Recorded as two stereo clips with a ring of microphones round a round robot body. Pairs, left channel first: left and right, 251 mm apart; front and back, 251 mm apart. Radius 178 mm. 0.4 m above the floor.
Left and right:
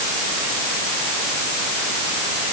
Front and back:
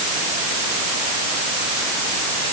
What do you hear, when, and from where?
Only background noise.